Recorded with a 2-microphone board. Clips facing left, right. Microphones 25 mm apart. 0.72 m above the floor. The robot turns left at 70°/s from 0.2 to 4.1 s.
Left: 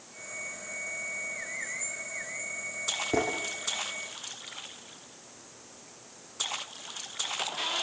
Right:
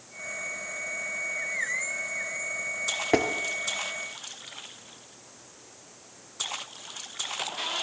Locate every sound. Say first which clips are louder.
3.1 s tapping: right 5 dB; 50° right (ahead or behind), 4 m; by 3.3 s 40° right (ahead or behind), 4 m